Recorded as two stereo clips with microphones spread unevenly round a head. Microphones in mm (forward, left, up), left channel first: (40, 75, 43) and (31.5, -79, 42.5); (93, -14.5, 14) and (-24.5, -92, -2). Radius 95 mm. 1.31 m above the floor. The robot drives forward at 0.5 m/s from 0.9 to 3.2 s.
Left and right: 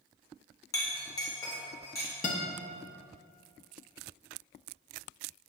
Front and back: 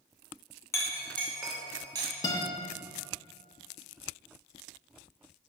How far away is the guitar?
About 0.7 m.